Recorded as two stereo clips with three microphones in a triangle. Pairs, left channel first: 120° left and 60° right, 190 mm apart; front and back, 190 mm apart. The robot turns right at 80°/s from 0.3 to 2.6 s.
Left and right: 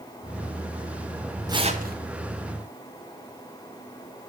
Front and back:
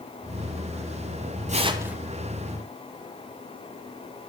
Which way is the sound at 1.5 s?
130° right.